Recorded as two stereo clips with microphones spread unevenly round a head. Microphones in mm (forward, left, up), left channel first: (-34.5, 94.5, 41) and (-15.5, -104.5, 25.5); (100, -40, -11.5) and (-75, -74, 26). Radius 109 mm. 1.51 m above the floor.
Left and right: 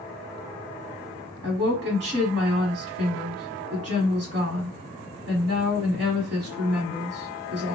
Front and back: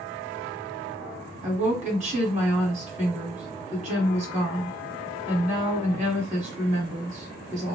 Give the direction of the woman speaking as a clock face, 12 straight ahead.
4 o'clock.